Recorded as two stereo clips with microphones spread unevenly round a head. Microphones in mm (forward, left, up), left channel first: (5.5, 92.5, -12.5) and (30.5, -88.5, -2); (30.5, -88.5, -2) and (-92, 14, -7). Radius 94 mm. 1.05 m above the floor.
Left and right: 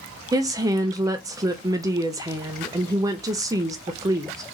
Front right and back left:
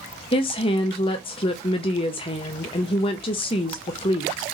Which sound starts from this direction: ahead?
A woman speaking, at 0.3 s.